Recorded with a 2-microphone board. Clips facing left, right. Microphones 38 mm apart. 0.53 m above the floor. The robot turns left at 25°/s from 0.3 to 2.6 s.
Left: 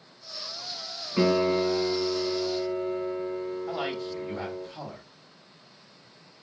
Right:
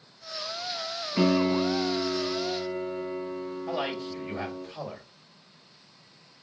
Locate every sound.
1.2 s a piano: straight ahead, 2 m; by 4.7 s 35° right, 2 m
3.7 s a man speaking: 45° right (ahead or behind), 2 m